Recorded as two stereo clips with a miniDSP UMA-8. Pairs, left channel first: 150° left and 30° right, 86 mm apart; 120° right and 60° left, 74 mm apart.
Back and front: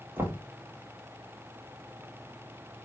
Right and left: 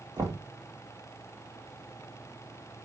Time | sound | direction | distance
0.2 | knocking | 35° left | 1.8 m